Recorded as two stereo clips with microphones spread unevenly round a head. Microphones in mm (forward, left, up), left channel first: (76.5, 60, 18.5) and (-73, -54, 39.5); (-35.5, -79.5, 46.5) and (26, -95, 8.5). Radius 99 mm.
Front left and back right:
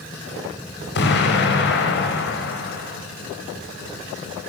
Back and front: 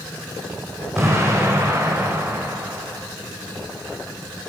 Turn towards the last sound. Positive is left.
turn(degrees=70)